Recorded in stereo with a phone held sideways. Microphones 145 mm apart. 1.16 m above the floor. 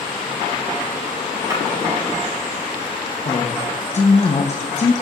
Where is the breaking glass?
25° right (ahead or behind), 5 m.